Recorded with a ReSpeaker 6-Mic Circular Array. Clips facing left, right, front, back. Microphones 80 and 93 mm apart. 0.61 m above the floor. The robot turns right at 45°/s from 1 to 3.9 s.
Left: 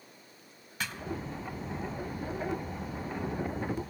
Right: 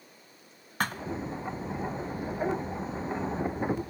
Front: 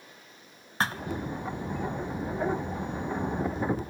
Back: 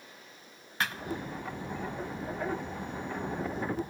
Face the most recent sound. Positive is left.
turn(degrees=80)